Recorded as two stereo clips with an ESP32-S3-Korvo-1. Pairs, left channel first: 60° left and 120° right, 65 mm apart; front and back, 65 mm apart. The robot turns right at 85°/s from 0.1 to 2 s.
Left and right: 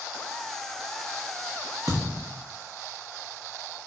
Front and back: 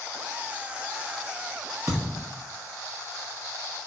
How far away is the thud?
About 1.2 m.